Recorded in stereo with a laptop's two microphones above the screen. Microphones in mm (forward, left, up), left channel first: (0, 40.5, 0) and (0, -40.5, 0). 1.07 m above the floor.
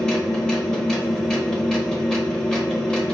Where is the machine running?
10° left (ahead or behind), 0.8 m.